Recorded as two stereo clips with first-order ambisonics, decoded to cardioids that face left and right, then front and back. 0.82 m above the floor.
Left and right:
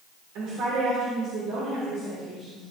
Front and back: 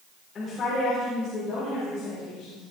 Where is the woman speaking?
65° right, 3 m; by 2.6 s 50° right, 4.5 m.